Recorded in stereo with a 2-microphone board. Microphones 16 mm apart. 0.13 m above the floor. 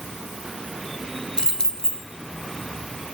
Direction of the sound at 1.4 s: 55° left (ahead or behind).